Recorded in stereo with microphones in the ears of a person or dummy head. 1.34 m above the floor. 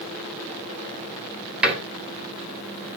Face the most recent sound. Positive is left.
turn(degrees=-5)  # may be behind; listen again after turning